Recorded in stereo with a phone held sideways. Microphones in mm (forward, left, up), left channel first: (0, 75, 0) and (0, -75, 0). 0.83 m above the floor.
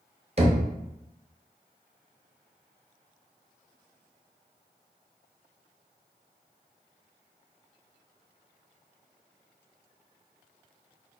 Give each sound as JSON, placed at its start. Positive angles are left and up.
{"t": 0.4, "sound": "knocking", "side_deg": -40, "distance_m": 0.6}